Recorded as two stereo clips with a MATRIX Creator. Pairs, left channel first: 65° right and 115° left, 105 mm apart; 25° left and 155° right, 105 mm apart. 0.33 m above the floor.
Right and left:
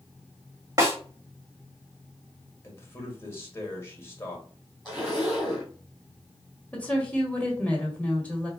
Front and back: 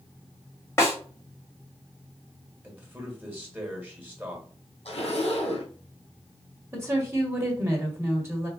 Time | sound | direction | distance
0.8 | a snare drum | 75° left | 1.8 m
2.6 | a man speaking | 105° right | 1.5 m
4.8 | a zipper | 30° left | 2 m
6.7 | a woman speaking | 130° right | 1.6 m